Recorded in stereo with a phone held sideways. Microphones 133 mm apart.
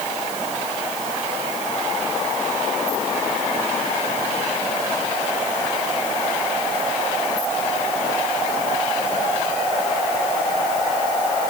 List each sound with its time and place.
Only background noise.